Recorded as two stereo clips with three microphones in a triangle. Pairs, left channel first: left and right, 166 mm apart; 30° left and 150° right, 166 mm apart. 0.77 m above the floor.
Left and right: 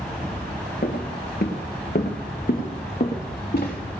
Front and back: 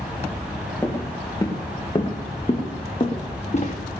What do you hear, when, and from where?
0.8 s footsteps: 105° left, 2.5 m; by 3.8 s 70° left, 3 m